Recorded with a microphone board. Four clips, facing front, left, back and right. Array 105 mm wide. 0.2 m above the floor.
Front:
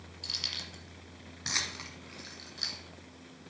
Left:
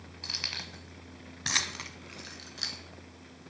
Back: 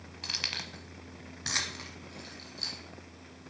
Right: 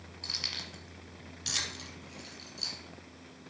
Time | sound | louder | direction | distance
0.2 | keys jangling | left 2 dB, back 5 dB | 170° left | 1.0 m